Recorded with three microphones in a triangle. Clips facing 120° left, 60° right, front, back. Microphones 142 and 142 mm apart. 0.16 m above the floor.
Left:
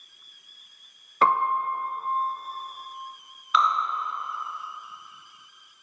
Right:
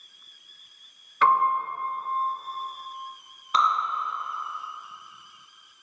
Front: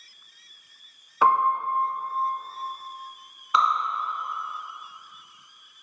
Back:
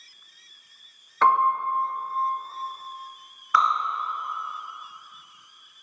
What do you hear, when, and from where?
1.2 s a piano: 75° left, 0.6 m
3.5 s dripping: 55° right, 1.4 m